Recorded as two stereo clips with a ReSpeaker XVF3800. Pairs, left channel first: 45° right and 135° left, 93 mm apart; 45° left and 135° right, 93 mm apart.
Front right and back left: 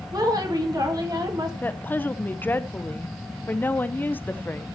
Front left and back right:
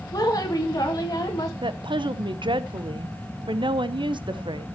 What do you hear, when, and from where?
0.1 s a woman speaking: 90° left, 2.5 m
1.6 s a woman speaking: 115° right, 0.8 m